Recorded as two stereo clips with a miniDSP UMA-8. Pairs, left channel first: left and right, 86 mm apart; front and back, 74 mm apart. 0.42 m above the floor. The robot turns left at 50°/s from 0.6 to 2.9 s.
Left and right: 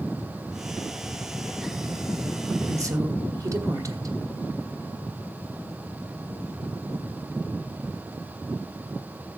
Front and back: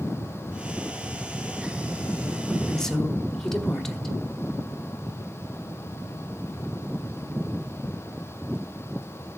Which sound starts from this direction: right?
A woman speaking, at 2.7 s.